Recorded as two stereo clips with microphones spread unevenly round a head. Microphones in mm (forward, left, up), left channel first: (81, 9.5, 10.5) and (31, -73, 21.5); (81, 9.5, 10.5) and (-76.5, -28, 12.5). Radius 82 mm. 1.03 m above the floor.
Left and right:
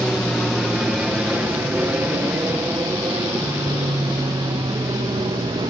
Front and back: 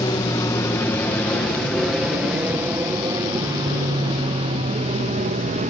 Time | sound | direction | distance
0.0 | an aircraft | 30° right | ?